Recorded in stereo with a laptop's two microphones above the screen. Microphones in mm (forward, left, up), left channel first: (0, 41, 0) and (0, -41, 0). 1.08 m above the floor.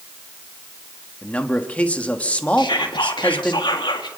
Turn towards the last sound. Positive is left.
turn(degrees=75)  # may be behind; listen again after turning